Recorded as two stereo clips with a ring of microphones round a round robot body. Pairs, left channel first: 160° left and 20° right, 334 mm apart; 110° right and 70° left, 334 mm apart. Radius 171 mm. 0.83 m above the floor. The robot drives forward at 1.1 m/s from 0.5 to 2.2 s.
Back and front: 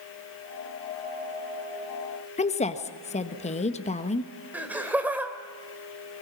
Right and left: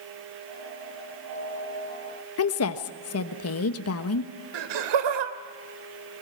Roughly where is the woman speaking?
Behind right.